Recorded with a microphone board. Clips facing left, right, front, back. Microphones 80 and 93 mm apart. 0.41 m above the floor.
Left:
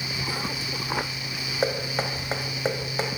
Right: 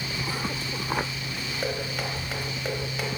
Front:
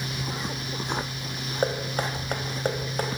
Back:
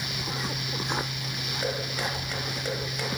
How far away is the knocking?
About 1.9 m.